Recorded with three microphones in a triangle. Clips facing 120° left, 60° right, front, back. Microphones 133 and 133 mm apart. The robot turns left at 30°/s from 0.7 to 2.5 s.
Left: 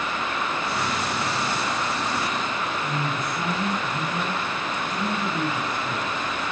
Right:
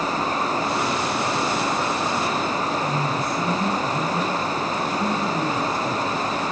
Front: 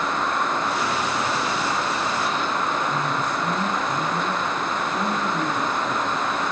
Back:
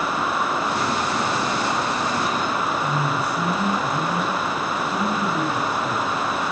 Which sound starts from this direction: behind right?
A man speaking, at 2.8 s.